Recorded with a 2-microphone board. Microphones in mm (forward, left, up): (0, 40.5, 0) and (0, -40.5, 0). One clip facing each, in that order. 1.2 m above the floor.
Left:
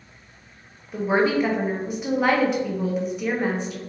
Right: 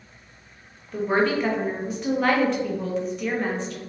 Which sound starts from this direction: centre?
A woman speaking, at 0.9 s.